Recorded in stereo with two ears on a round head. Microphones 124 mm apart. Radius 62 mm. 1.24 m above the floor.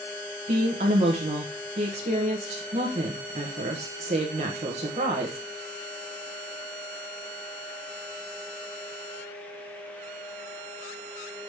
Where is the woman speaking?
50° right (ahead or behind), 1.1 m.